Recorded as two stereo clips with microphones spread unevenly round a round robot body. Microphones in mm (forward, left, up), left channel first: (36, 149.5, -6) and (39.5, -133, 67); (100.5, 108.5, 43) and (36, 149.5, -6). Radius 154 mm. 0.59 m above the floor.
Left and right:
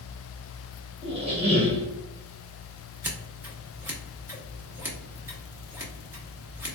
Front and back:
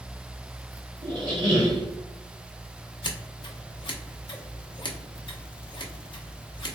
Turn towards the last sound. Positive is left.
turn(degrees=10)